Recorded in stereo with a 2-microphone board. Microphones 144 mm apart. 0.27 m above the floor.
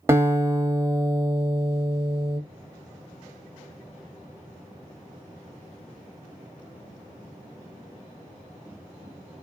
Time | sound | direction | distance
0.1 | a guitar | 20° right (ahead or behind) | 0.7 m